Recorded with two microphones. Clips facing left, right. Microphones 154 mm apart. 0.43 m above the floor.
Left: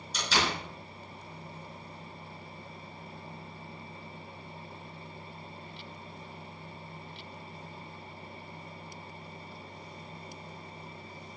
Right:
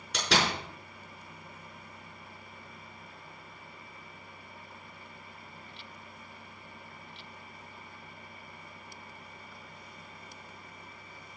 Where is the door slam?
65° right (ahead or behind), 5 m.